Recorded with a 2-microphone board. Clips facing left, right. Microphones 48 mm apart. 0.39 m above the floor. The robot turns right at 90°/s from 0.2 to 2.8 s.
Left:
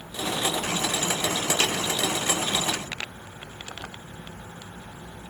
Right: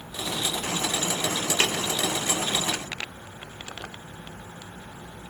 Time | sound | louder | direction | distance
1.6 | tapping | right 2 dB | 25° right (ahead or behind) | 2 m